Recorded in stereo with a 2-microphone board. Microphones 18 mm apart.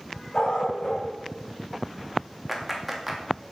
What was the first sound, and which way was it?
A dog barking, 55° left (ahead or behind).